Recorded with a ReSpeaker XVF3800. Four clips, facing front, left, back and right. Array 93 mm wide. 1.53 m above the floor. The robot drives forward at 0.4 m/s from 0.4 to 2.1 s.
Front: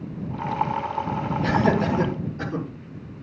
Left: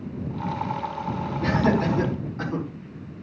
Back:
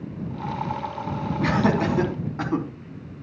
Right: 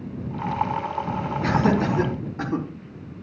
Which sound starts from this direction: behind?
Laughter, at 1.4 s.